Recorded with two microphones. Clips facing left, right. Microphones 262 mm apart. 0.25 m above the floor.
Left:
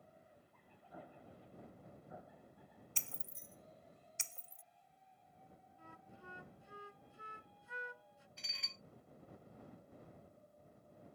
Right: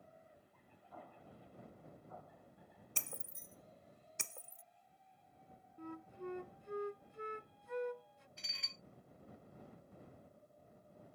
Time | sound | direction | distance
0.9 | an explosion | 15° left (ahead or behind) | ?
3.0 | breaking glass | 60° right (ahead or behind) | ?
5.8 | a flute | 65° right (ahead or behind) | ?
8.4 | dishes clattering | centre (ahead or behind) | ?